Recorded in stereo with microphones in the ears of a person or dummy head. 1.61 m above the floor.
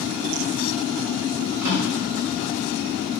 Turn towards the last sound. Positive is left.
turn(degrees=-60)  # may be behind; listen again after turning